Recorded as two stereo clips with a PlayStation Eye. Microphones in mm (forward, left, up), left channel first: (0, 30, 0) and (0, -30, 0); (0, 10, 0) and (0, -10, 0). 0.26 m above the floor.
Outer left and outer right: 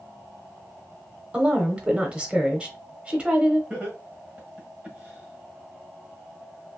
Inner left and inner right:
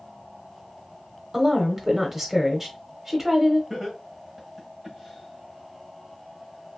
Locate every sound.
1.3 s a woman speaking: 20° right (ahead or behind), 0.9 m
3.7 s laughter: 20° right (ahead or behind), 1.4 m